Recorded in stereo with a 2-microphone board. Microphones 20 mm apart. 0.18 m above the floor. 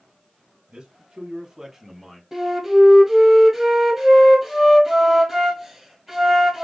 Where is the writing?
I don't hear writing.